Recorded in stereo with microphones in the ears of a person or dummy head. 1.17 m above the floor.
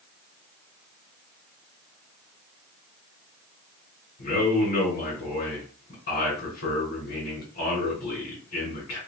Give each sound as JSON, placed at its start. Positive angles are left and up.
{"t": 4.2, "sound": "a man speaking", "side_deg": 55, "distance_m": 1.8}